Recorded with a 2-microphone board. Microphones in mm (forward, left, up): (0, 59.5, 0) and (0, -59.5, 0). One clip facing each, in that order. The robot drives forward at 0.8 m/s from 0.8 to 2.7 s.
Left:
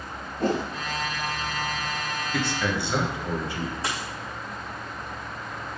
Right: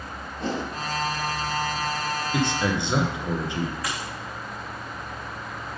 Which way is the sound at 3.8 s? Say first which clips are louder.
Left 1 dB; 25° left (ahead or behind).